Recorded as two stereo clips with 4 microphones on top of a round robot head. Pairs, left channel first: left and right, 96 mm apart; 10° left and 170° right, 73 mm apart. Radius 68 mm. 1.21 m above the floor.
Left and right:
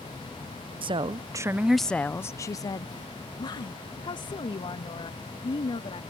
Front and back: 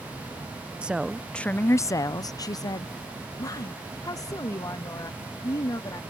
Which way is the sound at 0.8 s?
95° right.